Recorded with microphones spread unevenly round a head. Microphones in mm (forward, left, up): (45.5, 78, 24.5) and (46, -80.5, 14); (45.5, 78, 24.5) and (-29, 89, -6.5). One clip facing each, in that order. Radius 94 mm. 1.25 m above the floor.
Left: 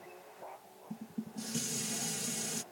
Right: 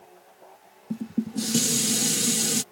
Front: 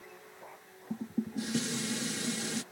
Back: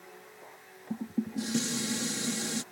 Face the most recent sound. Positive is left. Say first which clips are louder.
# right 14 dB, back 2 dB
turn(degrees=-95)